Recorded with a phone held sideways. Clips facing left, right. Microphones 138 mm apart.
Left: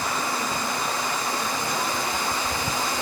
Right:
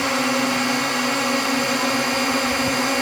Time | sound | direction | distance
0.0 | a drone | 80° right | ?